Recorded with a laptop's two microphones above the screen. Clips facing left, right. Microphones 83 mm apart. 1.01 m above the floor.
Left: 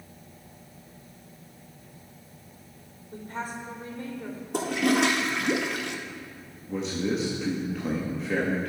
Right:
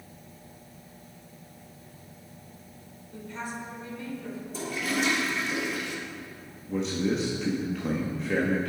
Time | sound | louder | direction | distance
3.1 | a woman speaking | left 2 dB | 50° left (ahead or behind) | 3.5 m
4.5 | a toilet flushing | left 7 dB | 80° left | 1.1 m
6.7 | a man speaking | right 1 dB | centre (ahead or behind) | 1.8 m